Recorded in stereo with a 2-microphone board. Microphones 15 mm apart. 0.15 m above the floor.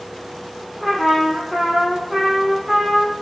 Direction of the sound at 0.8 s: 25° right (ahead or behind).